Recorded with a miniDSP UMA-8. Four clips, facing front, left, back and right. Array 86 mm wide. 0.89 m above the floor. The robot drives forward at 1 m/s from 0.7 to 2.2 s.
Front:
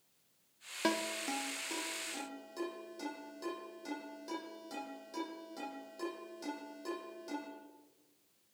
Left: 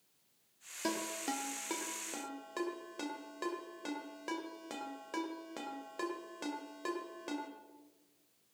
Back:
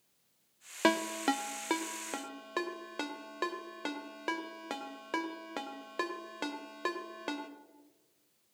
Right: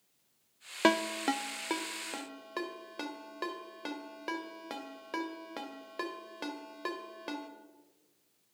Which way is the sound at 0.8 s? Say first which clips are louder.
Right 10 dB, back 6 dB; 115° right.